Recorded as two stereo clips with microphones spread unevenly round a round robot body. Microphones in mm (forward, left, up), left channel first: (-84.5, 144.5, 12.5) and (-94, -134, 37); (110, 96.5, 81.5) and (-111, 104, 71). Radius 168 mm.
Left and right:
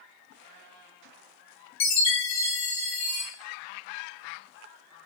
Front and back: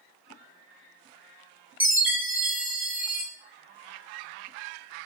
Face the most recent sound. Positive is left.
turn(degrees=95)